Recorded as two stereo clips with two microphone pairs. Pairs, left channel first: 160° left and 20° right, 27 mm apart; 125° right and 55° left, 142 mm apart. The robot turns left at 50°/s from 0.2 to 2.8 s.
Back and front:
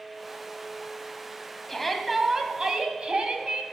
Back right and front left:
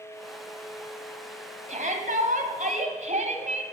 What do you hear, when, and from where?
1.7 s a shout: 80° left, 2.5 m; by 3.6 s 25° left, 2.5 m